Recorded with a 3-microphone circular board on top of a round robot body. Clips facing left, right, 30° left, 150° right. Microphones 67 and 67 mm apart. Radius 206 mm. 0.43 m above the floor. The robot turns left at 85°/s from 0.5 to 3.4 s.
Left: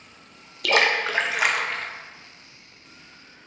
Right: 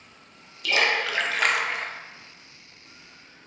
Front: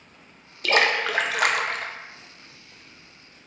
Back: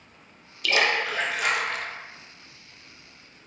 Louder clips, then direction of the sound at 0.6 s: Left 3 dB, front 2 dB; 80° left.